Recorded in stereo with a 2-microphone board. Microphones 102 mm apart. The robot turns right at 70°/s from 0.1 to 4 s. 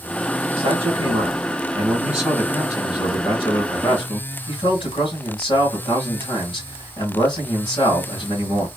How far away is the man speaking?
About 1.9 m.